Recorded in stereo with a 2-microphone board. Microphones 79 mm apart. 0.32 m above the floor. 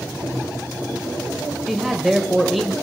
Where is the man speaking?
Centre (ahead or behind), 1.2 m.